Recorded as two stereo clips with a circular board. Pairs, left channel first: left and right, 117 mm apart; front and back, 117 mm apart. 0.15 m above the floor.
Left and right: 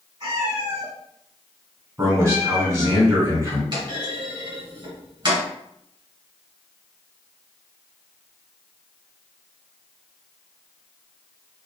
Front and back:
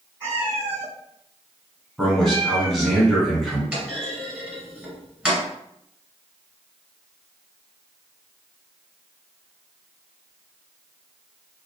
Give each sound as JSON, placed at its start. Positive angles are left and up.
{"t": 0.2, "sound": "a cat meowing", "azimuth_deg": -115, "distance_m": 1.1}
{"t": 2.0, "sound": "a man speaking", "azimuth_deg": -90, "distance_m": 1.4}
{"t": 3.7, "sound": "a clunk", "azimuth_deg": -100, "distance_m": 1.5}